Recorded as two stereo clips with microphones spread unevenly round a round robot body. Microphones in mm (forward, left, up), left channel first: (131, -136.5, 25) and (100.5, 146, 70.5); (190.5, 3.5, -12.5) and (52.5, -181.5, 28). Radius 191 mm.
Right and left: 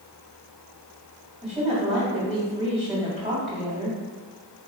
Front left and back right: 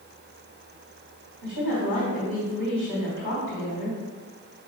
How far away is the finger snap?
No finger snap in this recording.